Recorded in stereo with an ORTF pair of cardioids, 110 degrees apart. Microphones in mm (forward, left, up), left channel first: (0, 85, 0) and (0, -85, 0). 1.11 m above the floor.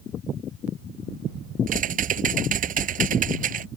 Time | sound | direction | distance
1.7 | typing on a keyboard | 55° right | ?